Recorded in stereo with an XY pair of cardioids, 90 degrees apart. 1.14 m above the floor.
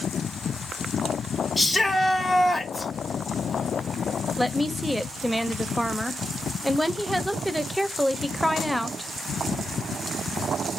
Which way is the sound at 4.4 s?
5° right.